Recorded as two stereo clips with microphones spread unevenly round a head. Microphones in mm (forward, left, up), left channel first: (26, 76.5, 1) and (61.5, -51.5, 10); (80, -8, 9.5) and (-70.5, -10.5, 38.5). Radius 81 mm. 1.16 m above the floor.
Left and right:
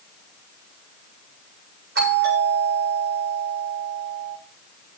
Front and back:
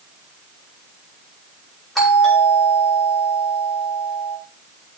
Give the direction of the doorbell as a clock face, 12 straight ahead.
3 o'clock.